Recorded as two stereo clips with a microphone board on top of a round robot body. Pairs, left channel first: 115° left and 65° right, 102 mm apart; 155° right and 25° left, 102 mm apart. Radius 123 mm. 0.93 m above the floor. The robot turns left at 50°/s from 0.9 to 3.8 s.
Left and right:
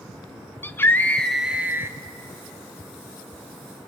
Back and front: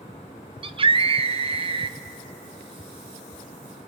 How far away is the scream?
About 1.0 m.